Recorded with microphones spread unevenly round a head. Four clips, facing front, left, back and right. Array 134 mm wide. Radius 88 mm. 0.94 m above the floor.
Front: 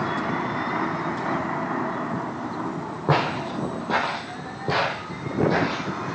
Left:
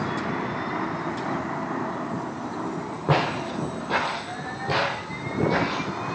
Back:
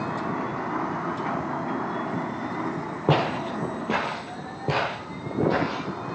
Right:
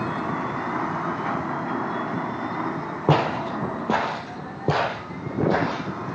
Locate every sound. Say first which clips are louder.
3.1 s footsteps: right 3 dB, even; 165° right, 1.8 m; by 6.2 s 115° right, 2.5 m